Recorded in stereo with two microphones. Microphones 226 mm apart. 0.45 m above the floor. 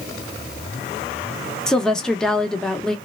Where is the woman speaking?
5° left (ahead or behind), 0.7 m.